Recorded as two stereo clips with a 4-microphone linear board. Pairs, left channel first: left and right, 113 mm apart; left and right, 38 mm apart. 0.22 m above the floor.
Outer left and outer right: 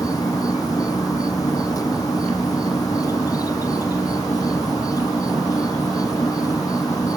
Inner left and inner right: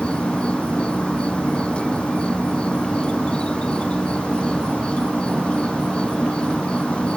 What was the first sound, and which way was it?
An insect, 30° left (ahead or behind).